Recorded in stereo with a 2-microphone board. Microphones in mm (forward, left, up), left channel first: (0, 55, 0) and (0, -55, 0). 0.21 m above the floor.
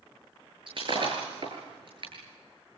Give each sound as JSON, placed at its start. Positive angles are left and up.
{"t": 0.7, "sound": "breaking glass", "side_deg": -50, "distance_m": 8.0}